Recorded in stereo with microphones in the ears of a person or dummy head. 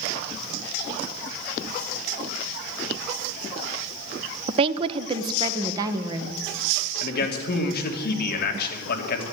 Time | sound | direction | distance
4.5 | a woman speaking | 30° right (ahead or behind) | 0.6 m
7.0 | a man speaking | 60° left (ahead or behind) | 3 m